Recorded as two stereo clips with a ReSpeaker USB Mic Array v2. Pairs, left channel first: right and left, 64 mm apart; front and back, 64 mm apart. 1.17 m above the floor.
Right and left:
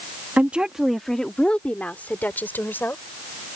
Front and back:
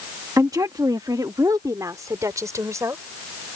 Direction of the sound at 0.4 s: 150° left.